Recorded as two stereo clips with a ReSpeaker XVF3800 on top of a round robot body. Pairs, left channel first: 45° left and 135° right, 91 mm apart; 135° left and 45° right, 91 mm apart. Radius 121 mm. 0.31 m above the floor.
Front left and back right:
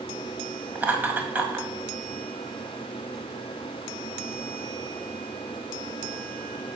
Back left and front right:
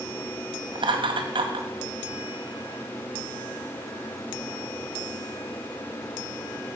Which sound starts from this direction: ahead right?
Laughter, at 0.8 s.